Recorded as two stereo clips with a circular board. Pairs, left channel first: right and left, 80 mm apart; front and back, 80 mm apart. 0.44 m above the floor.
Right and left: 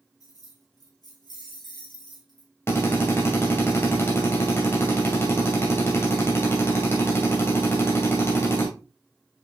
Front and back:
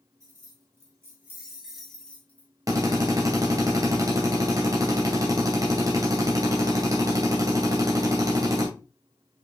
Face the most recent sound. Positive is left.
turn(degrees=-145)